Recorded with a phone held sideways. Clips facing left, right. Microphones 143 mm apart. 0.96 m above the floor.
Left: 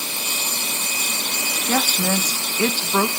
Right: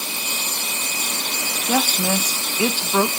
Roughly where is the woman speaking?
Centre.